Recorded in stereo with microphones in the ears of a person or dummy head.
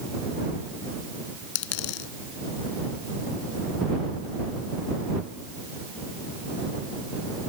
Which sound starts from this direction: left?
A dropped coin, at 1.6 s.